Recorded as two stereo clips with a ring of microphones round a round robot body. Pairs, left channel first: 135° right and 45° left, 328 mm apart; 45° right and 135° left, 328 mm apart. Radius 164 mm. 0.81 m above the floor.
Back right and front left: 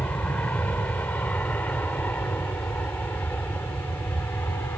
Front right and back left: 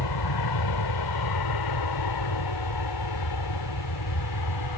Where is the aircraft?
50° right.